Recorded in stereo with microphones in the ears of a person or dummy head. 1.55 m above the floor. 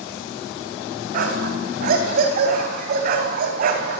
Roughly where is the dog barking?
Right.